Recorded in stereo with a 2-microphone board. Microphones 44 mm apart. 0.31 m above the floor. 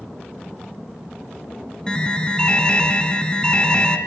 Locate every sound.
1.9 s an alarm: 20° left (ahead or behind), 2.5 m